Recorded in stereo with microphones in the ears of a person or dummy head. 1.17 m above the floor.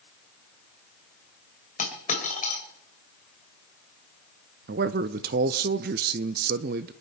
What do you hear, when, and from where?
1.8 s a dropped coin: 40° left (ahead or behind), 3 m
4.7 s a man speaking: 45° right (ahead or behind), 0.5 m